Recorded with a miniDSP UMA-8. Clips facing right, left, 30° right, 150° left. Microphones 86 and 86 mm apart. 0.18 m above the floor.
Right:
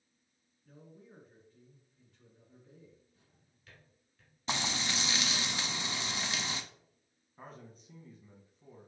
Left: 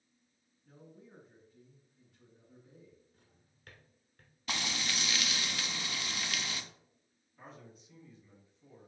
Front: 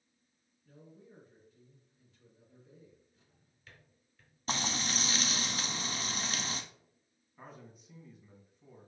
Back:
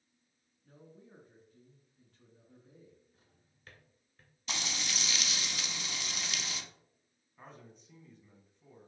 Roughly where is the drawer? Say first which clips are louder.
Left 2 dB, even; left.